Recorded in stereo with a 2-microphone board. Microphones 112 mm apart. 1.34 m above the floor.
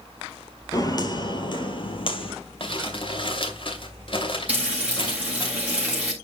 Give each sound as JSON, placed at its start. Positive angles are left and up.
{"t": 0.7, "sound": "footsteps", "side_deg": 35, "distance_m": 1.7}
{"t": 2.6, "sound": "crumpling", "side_deg": 50, "distance_m": 2.5}
{"t": 4.5, "sound": "frying", "side_deg": -10, "distance_m": 4.0}